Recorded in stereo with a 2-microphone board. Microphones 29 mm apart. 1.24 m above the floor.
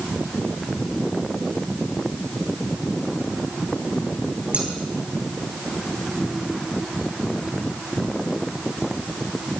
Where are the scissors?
50° right (ahead or behind), 4.5 m.